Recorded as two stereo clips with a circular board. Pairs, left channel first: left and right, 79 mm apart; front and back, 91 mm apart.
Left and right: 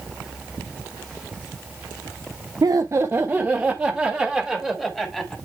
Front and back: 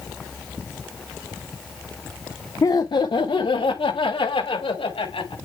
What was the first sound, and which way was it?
Laughter, 55° right.